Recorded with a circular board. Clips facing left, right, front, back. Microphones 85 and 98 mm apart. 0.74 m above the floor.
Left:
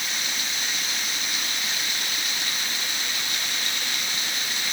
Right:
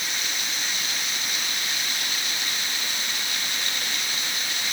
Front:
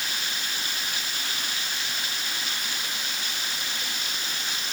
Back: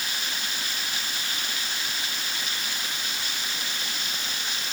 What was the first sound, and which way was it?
Only background noise.